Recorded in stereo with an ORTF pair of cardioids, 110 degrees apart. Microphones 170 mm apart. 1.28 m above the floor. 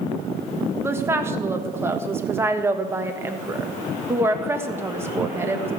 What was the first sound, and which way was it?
A woman speaking, 15° right.